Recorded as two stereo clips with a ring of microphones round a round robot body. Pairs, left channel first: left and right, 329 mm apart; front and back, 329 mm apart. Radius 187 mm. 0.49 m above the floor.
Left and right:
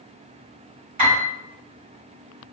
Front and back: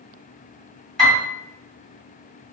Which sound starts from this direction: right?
A piano, at 1.0 s.